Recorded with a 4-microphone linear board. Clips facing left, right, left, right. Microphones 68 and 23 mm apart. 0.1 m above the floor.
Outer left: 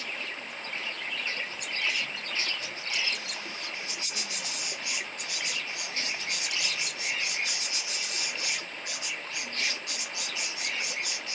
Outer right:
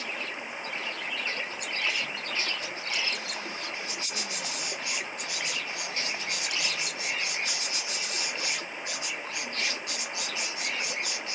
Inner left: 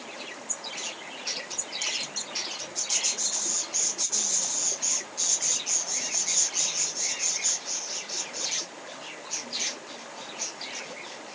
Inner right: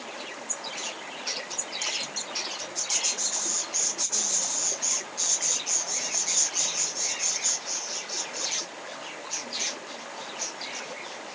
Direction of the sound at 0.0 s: 15° right (ahead or behind).